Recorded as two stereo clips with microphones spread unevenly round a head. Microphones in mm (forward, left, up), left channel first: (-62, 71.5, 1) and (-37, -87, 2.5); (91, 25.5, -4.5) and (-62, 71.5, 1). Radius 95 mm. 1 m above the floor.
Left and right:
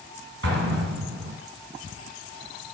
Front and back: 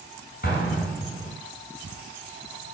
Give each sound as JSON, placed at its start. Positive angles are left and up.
{"t": 0.4, "sound": "an explosion", "azimuth_deg": -70, "distance_m": 3.5}